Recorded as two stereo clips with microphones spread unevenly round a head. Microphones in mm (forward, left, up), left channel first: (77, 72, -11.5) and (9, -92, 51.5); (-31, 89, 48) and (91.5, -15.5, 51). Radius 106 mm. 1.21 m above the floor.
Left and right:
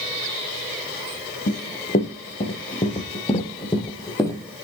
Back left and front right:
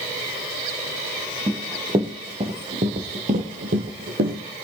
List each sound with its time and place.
1.5 s running footsteps: 20° left, 3 m; by 4.4 s 15° right, 3 m